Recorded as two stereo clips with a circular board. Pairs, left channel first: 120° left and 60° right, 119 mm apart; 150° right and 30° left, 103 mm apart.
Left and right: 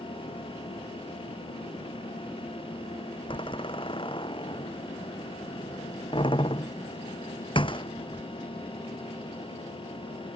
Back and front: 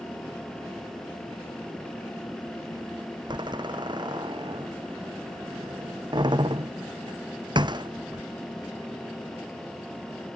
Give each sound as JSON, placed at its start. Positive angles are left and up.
{"t": 3.3, "sound": "a door slam", "azimuth_deg": 75}